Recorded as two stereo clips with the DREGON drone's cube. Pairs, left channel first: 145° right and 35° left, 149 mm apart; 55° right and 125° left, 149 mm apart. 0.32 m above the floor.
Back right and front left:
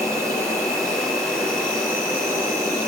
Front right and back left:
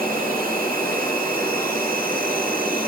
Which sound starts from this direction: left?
An insect, at 0.0 s.